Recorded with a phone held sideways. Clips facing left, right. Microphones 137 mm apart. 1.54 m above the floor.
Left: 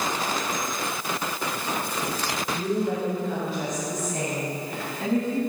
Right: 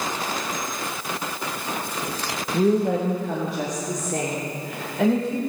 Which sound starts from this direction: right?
A woman speaking, at 2.5 s.